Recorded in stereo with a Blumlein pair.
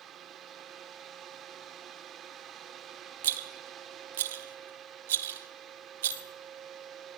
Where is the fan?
25° right, 1.0 m.